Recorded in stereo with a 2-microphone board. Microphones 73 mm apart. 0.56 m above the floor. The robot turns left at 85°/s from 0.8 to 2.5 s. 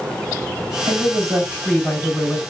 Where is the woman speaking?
105° right, 2.5 m; by 2.4 s 125° left, 2.5 m.